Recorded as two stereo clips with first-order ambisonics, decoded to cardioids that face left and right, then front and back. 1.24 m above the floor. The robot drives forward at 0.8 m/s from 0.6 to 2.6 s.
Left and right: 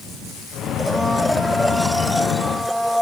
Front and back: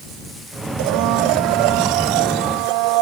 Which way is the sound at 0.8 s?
Straight behind.